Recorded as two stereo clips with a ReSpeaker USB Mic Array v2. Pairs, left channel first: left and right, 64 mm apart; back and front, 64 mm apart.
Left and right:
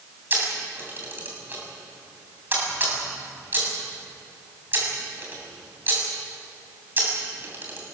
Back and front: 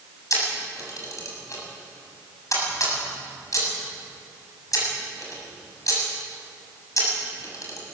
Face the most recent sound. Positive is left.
turn(degrees=-145)